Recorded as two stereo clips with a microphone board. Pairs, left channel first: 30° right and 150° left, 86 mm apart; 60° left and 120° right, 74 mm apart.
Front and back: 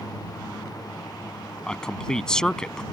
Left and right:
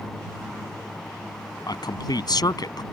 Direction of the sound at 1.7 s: 50° left.